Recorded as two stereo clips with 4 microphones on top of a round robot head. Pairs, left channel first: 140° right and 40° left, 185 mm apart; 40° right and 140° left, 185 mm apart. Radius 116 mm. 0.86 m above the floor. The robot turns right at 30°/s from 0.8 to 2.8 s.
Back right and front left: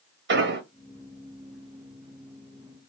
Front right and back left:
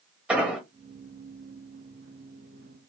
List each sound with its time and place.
0.3 s an explosion: 55° left, 1.7 m